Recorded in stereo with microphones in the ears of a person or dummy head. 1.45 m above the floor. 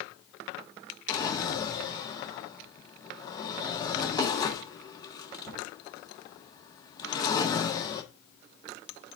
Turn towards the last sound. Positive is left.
turn(degrees=20)  # may be behind; listen again after turning